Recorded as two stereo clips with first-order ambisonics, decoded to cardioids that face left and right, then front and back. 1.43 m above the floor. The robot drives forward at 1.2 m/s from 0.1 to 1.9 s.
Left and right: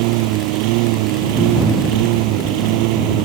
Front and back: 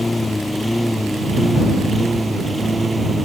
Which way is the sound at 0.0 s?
85° right.